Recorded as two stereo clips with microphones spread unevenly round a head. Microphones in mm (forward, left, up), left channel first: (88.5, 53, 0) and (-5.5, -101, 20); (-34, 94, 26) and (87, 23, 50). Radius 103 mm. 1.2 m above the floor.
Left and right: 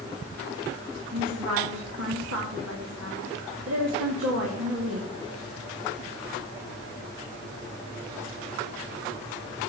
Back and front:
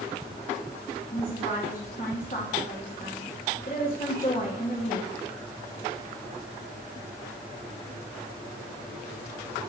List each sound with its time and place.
1.1 s a woman speaking: 155° right, 2 m